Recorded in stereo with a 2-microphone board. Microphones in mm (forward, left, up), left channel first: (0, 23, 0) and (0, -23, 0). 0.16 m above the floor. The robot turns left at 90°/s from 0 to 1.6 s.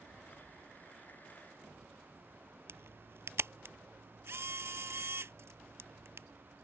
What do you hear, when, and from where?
2.7 s a camera shutter: 65° right (ahead or behind)